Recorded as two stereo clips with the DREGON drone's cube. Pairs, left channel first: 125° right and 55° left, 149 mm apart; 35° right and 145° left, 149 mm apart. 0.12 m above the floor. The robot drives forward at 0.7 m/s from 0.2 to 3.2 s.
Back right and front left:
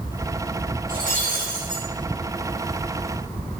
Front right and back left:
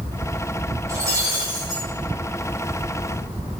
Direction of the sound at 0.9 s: 75° left.